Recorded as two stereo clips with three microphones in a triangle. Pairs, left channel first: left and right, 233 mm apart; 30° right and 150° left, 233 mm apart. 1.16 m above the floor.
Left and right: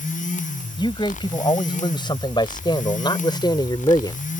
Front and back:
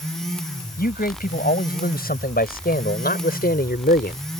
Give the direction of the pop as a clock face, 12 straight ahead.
I don't hear a pop.